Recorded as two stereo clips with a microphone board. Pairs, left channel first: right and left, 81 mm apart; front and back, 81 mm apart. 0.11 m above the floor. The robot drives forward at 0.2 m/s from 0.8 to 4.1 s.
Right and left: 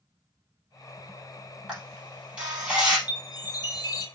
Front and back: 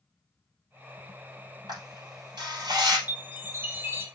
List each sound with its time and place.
1.7 s a camera shutter: 165° left, 3 m
3.1 s a chime: 115° right, 1.5 m; by 4.0 s 120° right, 1.6 m